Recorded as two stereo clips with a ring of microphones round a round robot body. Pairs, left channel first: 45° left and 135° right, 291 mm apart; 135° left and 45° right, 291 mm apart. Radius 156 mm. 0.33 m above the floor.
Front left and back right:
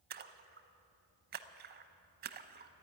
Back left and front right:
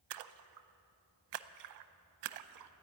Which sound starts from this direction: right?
A splash, at 0.1 s.